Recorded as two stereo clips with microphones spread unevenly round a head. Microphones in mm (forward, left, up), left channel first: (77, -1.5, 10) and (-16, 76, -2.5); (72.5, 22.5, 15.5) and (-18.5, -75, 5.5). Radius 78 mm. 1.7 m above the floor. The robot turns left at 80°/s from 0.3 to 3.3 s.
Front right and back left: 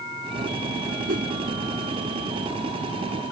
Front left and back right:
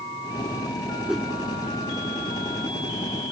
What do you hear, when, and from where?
1.1 s a whoosh: 145° left; by 1.3 s 125° left